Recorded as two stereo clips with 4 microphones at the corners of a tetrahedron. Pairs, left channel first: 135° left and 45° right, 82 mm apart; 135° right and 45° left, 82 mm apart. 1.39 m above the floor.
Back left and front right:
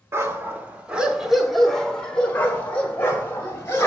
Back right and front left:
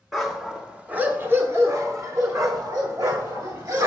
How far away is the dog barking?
About 1.1 m.